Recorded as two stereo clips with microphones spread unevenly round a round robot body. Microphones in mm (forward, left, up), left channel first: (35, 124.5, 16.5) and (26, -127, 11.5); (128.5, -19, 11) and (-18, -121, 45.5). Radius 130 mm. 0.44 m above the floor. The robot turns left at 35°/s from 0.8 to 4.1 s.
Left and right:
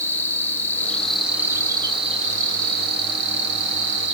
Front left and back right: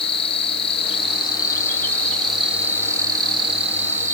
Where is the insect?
10° left, 1.6 m; by 4.2 s 105° right, 1.6 m.